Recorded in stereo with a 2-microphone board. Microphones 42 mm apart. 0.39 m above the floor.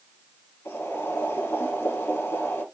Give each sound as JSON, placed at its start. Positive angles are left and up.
{"t": 0.7, "sound": "boiling", "side_deg": 80, "distance_m": 3.0}